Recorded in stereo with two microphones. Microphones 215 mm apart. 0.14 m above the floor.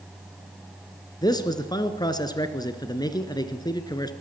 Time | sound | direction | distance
1.2 | a man speaking | 20° left (ahead or behind) | 1.8 m